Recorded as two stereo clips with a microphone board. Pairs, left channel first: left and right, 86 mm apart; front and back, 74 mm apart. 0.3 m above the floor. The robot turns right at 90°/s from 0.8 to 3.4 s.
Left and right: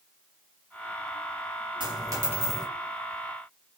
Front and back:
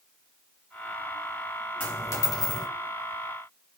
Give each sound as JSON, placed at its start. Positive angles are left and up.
{"t": 1.8, "sound": "a dropped coin", "azimuth_deg": -70, "distance_m": 1.7}